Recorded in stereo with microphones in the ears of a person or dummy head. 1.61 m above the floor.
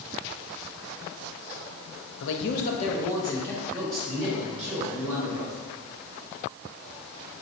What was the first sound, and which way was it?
A man speaking, 70° left (ahead or behind).